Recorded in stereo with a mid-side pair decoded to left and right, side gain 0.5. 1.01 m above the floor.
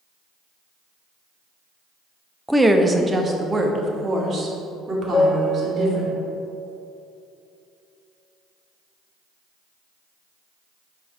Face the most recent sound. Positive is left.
turn(degrees=25)